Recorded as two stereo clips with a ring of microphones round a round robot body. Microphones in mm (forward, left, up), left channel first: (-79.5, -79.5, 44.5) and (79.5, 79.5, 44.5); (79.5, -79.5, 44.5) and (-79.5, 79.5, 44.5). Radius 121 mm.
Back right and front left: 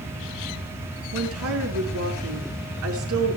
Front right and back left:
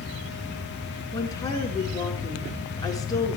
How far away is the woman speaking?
About 5.5 m.